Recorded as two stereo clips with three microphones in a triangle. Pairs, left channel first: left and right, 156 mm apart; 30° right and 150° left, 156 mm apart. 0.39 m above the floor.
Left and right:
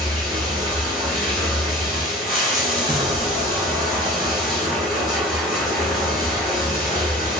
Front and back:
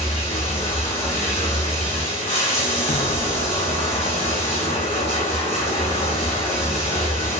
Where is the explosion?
40° right, 0.6 m.